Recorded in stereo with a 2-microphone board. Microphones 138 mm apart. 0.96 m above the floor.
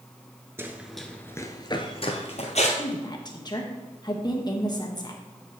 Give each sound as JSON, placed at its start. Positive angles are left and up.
{"t": 0.6, "sound": "running footsteps", "side_deg": -20, "distance_m": 0.9}
{"t": 2.8, "sound": "a woman speaking", "side_deg": 30, "distance_m": 1.3}